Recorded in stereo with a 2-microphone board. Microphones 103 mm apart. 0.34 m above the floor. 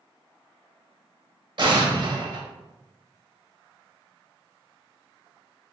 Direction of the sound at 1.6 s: 50° right (ahead or behind).